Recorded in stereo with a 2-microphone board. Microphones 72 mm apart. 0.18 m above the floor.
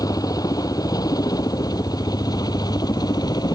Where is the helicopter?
60° left (ahead or behind); by 3.5 s 65° left (ahead or behind).